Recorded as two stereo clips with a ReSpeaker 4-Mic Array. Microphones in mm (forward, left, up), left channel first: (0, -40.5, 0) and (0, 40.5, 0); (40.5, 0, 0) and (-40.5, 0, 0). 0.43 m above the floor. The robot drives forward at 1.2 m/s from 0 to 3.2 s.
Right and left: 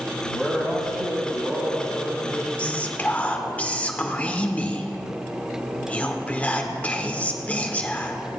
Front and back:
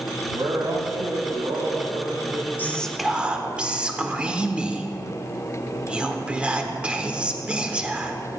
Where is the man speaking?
175° left, 2.5 m; by 3.0 s straight behind, 5.5 m.